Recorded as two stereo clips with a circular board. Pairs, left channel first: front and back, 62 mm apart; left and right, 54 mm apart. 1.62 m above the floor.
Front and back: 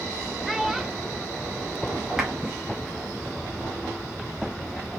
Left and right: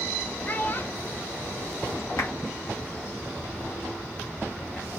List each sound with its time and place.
0.5 s a child speaking: 95° left, 0.8 m
2.2 s a clap: 95° left, 2.5 m